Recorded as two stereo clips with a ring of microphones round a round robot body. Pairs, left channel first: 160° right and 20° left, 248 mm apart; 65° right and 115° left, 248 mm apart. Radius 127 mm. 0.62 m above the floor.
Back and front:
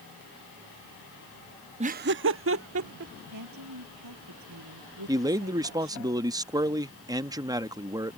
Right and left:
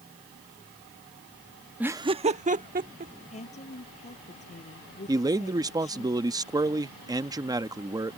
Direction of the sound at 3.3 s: Straight ahead.